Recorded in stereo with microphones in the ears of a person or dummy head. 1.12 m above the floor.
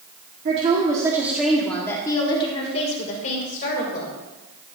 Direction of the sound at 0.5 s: 40° right (ahead or behind).